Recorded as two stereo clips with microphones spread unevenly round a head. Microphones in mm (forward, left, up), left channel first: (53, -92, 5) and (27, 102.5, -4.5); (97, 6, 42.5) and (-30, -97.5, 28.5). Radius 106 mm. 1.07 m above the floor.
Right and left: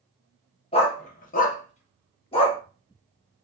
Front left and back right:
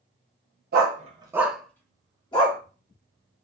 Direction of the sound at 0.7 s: 135° right.